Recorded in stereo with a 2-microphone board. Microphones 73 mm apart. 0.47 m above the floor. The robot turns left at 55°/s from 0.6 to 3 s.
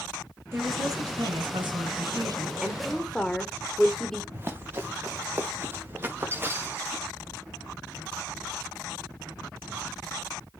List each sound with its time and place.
0.5 s a woman speaking: 30° right, 6 m; by 2.5 s 135° right, 6 m
2.6 s a woman speaking: 10° right (ahead or behind), 1.9 m; by 4.2 s 5° left (ahead or behind), 1.9 m
4.3 s running footsteps: 30° right (ahead or behind), 3 m; by 7.0 s 25° right (ahead or behind), 5.5 m